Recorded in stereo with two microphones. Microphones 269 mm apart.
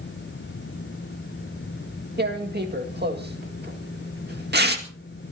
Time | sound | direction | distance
2.2 | tearing paper | 40° right (ahead or behind) | 2 m